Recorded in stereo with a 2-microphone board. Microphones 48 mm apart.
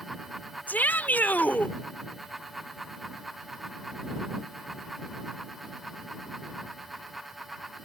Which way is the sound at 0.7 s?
40° left (ahead or behind).